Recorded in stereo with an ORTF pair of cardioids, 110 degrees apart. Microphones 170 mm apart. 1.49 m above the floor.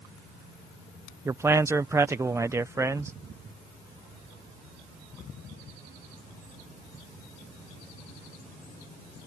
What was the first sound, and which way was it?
A man speaking, 15° right.